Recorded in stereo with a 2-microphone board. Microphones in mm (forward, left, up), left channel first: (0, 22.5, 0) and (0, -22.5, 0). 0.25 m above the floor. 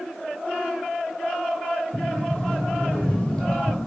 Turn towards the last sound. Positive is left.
turn(degrees=20)  # may be behind; listen again after turning